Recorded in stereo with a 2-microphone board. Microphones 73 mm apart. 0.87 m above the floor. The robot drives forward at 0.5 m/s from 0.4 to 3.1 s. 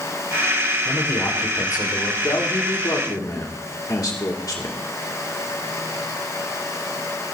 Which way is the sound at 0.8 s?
55° left (ahead or behind).